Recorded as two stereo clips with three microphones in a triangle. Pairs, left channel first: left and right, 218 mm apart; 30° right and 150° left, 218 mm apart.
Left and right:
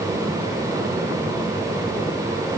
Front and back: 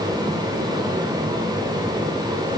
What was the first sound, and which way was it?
Only background noise.